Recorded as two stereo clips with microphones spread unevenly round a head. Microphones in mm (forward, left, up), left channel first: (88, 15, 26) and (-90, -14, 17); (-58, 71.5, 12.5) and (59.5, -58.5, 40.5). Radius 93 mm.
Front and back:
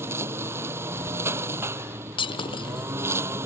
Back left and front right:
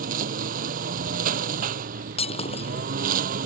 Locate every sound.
0.0 s a lawn mower: 95° right
2.2 s breaking glass: 75° left